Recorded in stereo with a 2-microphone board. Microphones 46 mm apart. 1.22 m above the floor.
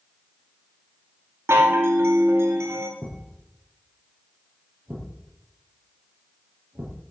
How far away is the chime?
About 2.5 m.